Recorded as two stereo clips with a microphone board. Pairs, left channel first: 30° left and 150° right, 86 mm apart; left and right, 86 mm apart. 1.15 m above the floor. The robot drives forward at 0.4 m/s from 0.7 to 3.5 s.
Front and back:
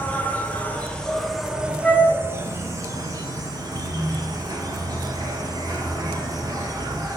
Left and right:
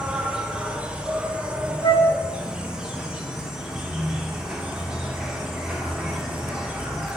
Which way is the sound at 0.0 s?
25° right.